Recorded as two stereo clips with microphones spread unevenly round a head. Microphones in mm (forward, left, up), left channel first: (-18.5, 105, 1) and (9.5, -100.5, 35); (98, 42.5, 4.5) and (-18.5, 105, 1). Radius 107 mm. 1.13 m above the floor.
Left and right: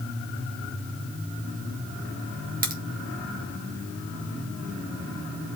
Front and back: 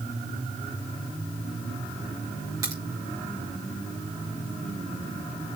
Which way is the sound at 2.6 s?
135° right.